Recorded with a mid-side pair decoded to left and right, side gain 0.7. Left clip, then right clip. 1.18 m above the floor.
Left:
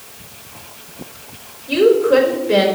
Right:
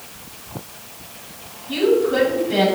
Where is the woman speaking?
65° left, 3.5 m.